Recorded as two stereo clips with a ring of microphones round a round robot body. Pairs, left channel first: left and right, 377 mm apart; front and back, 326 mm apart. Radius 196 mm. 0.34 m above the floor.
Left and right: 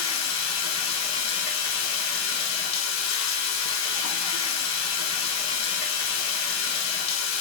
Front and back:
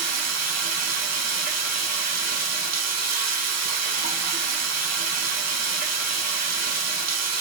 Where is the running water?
140° left, 2.5 m.